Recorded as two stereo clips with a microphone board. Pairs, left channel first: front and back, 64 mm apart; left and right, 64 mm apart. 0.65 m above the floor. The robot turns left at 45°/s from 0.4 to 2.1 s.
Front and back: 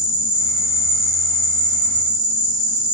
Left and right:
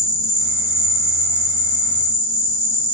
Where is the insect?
120° left, 0.8 m; by 3.0 s 45° left, 0.8 m.